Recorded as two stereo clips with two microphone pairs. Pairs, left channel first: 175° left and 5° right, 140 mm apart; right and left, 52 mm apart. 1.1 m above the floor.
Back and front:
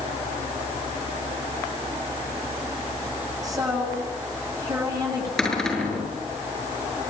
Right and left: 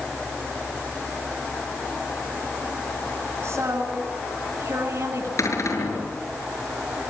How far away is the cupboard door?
About 6.5 m.